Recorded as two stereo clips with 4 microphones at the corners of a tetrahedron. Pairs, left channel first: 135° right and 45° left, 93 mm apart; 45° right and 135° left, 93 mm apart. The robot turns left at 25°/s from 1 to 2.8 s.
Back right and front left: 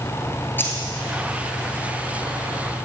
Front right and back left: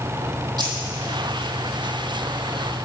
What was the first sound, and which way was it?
Keys jangling, 160° left.